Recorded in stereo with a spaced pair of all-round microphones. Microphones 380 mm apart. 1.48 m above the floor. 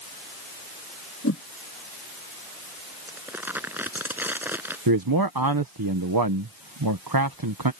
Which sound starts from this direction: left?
A whoosh, at 1.2 s.